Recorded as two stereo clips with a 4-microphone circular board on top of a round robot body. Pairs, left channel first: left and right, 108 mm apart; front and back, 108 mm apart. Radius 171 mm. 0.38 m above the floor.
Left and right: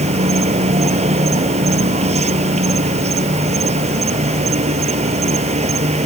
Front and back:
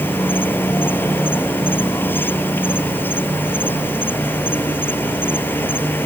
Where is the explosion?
I don't hear an explosion.